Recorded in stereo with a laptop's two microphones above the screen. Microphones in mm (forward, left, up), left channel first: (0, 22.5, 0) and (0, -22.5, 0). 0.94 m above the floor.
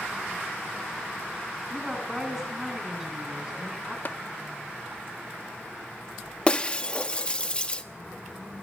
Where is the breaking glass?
25° left (ahead or behind), 0.9 m.